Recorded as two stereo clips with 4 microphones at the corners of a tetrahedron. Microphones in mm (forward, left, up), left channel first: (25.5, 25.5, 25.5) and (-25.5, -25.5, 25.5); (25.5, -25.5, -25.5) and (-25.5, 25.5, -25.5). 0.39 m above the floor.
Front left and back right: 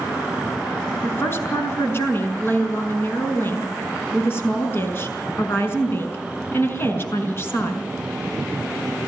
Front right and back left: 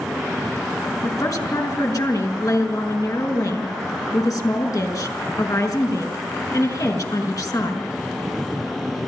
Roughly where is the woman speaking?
Ahead.